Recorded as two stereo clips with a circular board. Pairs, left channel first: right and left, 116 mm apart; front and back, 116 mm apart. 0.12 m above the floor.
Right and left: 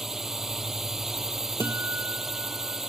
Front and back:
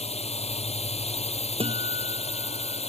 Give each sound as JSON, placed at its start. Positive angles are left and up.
{"t": 0.0, "sound": "a drone", "azimuth_deg": 5}
{"t": 1.6, "sound": "a guitar", "azimuth_deg": 155}